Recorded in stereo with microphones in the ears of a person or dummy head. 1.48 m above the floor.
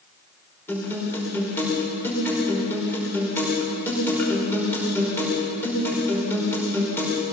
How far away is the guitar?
About 5.5 m.